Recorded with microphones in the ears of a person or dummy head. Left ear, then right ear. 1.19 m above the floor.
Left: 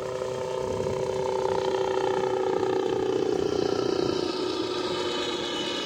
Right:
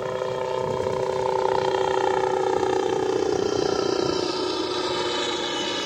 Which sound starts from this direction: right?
A helicopter, at 0.0 s.